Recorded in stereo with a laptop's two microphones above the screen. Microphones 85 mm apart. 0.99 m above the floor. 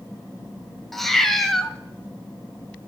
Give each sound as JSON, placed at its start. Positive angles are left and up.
{"t": 0.9, "sound": "a cat meowing", "side_deg": 5, "distance_m": 1.1}